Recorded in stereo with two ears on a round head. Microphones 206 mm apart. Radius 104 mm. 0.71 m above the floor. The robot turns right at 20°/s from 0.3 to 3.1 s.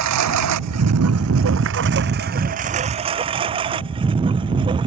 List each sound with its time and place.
0.0 s a lawn mower: 85° right; by 4.9 s 20° right (ahead or behind)